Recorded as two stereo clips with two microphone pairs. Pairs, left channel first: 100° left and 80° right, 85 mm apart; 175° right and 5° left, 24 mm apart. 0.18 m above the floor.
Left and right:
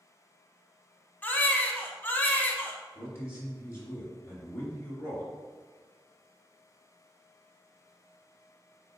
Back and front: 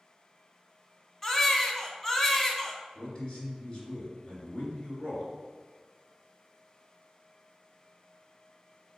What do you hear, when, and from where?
1.2 s a baby crying: 135° left, 0.6 m
3.0 s a man speaking: 140° left, 1.5 m